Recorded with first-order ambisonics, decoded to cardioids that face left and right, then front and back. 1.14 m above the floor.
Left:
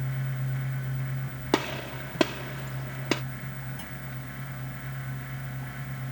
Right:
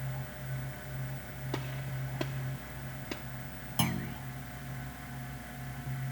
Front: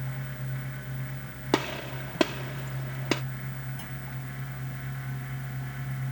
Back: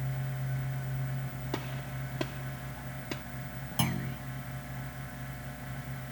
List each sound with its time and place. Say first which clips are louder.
1.5 s a gunshot: left 13 dB, front 12 dB; 50° left
3.8 s a clunk: right 6 dB, back 7 dB; 135° right